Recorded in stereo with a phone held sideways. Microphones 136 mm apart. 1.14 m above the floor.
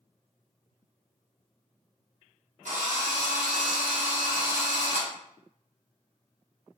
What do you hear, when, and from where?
2.6 s a drill: 65° right (ahead or behind), 0.8 m